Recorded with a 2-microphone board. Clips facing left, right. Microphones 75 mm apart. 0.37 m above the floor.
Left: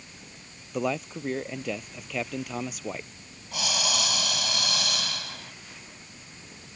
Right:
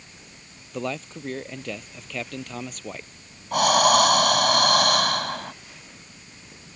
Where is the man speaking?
5° left (ahead or behind).